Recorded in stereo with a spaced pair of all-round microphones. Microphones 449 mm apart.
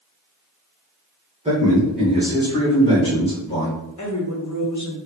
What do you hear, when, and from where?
1.4 s a man speaking: 10° right (ahead or behind), 1.2 m; by 3.7 s 15° left (ahead or behind), 2.5 m
4.0 s a woman speaking: 40° left (ahead or behind), 0.9 m